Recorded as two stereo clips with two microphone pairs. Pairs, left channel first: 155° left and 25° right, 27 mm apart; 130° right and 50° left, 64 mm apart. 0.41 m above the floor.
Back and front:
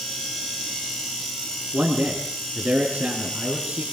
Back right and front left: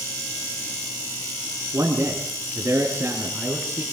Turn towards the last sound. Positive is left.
turn(degrees=-20)